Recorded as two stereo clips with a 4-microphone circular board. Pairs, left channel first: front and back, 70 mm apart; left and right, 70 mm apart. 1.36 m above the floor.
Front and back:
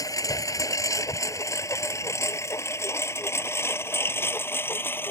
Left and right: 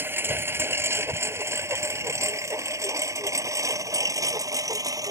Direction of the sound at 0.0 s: 30° right.